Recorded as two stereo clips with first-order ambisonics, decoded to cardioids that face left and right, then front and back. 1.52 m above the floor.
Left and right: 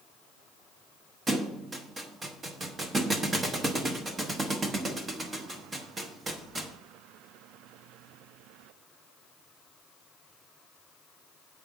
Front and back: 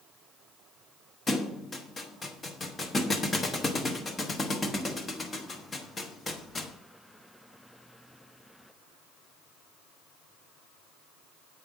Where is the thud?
45° right, 0.8 m.